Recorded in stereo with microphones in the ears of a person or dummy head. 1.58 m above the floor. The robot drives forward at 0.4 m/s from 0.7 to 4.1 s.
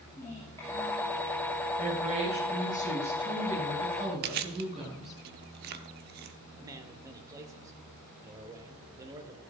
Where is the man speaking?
20° right (ahead or behind), 1.5 m.